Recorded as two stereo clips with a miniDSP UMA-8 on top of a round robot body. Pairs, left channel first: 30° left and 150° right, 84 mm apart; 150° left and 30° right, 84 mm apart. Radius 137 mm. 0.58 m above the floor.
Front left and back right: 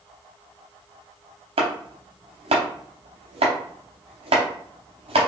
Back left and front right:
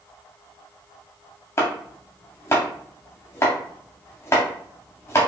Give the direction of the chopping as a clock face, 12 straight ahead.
5 o'clock.